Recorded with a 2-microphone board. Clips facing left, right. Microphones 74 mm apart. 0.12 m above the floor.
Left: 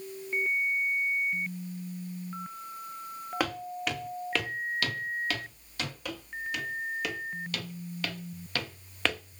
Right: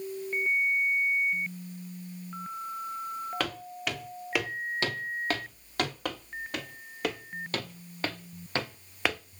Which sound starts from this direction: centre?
Footsteps, at 3.4 s.